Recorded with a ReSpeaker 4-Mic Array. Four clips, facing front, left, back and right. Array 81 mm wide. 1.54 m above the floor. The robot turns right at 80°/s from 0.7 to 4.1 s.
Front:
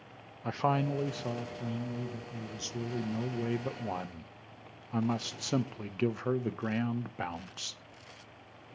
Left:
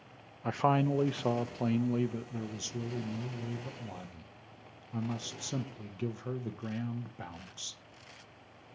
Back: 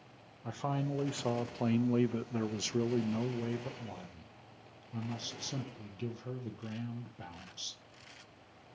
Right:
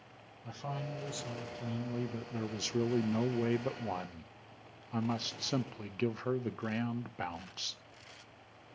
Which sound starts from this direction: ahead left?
A man speaking, at 0.4 s.